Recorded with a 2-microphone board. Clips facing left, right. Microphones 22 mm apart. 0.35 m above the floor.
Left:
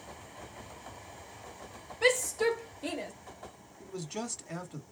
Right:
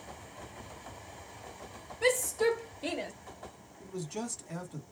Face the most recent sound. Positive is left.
turn(degrees=25)  # may be behind; listen again after turning